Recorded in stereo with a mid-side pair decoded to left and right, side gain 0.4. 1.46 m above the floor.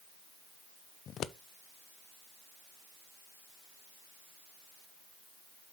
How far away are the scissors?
About 0.5 m.